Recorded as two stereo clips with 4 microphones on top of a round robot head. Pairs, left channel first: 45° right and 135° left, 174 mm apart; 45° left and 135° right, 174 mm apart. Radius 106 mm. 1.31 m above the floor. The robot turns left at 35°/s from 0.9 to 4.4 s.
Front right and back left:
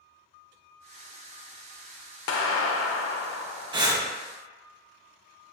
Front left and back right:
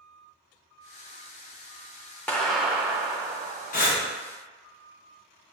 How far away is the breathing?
About 0.8 m.